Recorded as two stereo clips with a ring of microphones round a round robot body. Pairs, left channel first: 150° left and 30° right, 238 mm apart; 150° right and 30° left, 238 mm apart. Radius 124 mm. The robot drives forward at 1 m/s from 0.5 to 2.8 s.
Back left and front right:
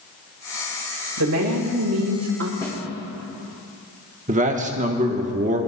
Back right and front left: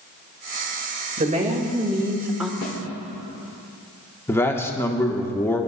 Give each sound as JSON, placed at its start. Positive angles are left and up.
{"t": 1.2, "sound": "a woman speaking", "azimuth_deg": -25, "distance_m": 2.0}
{"t": 2.6, "sound": "a snare drum", "azimuth_deg": -135, "distance_m": 3.5}
{"t": 4.3, "sound": "a man speaking", "azimuth_deg": -75, "distance_m": 1.1}